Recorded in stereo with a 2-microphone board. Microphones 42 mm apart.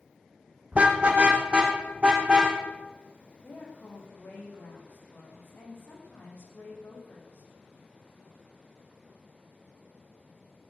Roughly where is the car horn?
Right.